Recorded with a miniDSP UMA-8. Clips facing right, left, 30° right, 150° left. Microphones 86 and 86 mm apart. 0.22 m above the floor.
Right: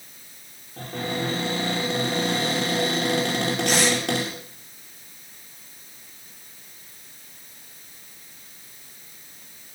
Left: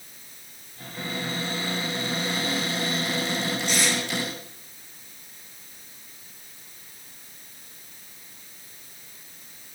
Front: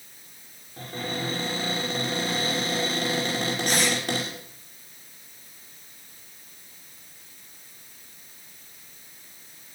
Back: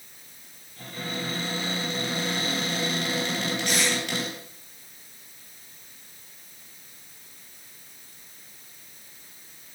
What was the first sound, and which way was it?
A cupboard door, 85° right.